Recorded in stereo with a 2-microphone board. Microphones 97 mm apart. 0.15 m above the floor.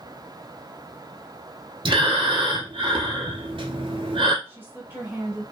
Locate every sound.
1.9 s breathing: 65° right (ahead or behind), 0.7 m
4.5 s a woman speaking: 20° right (ahead or behind), 1.1 m